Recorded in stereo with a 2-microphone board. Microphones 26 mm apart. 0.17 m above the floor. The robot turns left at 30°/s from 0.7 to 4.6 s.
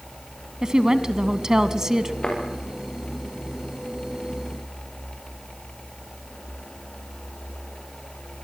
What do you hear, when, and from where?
0.6 s a woman speaking: 25° right (ahead or behind), 1.2 m; by 2.1 s 20° right (ahead or behind), 1.2 m
2.2 s a thud: 40° left (ahead or behind), 9.5 m; by 2.4 s 35° left (ahead or behind), 9.5 m